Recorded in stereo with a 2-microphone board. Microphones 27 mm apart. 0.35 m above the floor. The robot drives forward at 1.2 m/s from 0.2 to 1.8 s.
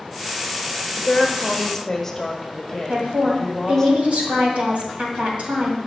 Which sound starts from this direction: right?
A woman speaking, at 2.9 s.